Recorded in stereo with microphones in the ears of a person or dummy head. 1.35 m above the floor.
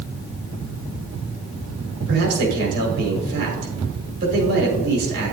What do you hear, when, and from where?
2.1 s a man speaking: 65° right (ahead or behind), 5.5 m